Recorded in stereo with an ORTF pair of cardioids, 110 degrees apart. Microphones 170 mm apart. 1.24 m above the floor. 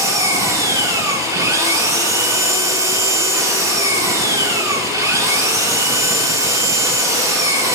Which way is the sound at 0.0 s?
20° right.